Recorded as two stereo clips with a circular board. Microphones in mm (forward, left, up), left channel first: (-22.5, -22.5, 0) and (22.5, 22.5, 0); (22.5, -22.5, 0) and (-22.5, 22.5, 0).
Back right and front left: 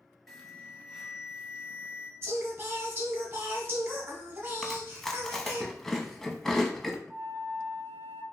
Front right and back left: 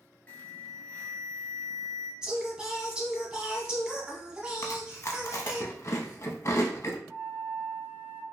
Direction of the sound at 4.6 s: 55° right.